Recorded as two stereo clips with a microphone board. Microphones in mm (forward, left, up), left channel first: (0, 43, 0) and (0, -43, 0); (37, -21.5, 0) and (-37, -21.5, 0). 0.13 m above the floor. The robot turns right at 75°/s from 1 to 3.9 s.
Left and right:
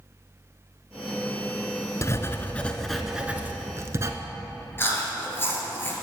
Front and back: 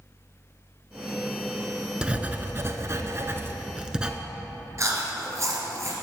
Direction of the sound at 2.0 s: 110° left.